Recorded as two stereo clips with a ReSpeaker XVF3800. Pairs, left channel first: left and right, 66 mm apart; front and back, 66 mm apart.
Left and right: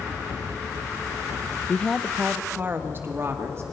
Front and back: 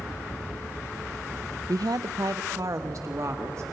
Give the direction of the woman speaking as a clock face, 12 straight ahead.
7 o'clock.